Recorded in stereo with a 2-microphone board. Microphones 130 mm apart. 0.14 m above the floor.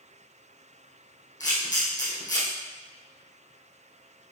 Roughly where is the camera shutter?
Left.